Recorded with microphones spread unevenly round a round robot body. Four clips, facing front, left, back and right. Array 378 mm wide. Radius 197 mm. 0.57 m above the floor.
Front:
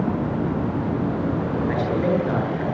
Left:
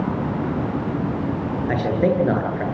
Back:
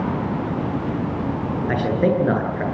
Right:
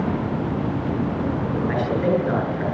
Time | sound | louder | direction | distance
1.7 | a man speaking | left 2 dB, back 4 dB | 145° left | 10 m